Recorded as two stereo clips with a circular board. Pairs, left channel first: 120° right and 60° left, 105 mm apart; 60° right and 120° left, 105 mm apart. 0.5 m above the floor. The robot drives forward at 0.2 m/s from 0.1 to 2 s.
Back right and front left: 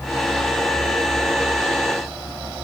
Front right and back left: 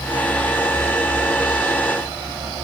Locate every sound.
Only background noise.